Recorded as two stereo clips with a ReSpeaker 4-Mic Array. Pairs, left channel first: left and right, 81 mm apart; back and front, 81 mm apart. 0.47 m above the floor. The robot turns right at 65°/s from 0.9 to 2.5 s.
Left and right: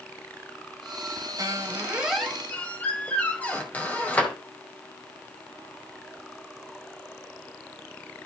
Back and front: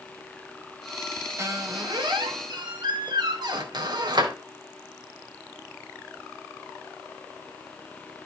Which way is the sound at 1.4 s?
50° right.